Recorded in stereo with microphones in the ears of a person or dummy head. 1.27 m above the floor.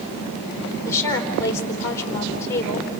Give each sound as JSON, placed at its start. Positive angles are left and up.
{"t": 0.8, "sound": "a woman speaking", "side_deg": 15, "distance_m": 3.5}